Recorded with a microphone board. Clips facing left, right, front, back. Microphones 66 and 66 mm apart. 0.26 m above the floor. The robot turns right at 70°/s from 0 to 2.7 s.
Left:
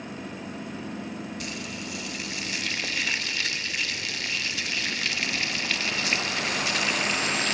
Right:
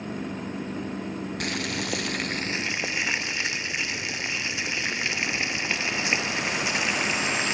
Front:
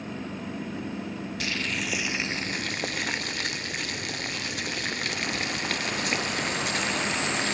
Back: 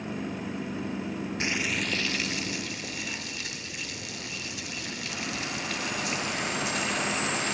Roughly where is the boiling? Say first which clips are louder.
Right 6 dB, even; behind right.